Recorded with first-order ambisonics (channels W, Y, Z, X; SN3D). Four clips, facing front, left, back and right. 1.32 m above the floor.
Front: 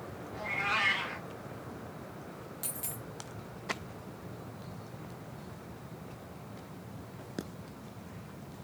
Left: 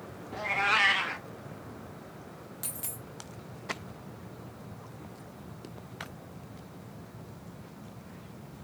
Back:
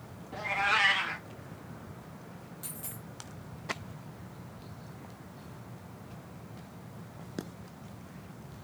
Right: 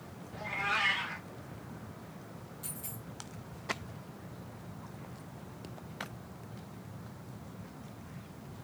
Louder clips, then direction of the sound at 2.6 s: Left 4 dB, front 3 dB; 65° left.